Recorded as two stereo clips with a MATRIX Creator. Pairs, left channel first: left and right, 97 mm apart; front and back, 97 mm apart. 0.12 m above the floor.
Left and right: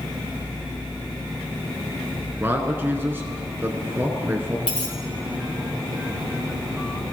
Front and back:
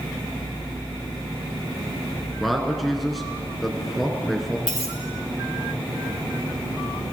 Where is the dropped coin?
100° left, 5 m.